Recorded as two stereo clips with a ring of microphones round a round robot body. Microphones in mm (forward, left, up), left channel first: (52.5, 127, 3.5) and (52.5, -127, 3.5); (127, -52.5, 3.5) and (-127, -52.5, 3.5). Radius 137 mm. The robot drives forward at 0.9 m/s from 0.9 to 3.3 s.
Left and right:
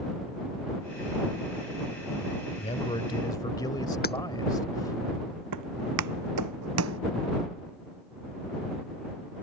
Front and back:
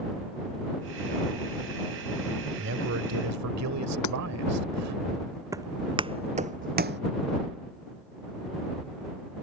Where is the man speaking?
150° left; by 5.0 s 165° left.